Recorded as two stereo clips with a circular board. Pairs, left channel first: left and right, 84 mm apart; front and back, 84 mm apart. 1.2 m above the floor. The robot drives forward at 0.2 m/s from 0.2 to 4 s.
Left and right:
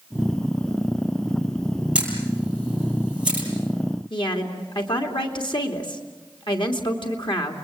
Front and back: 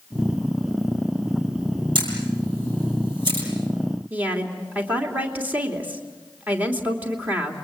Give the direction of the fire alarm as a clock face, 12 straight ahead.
No fire alarm in this recording.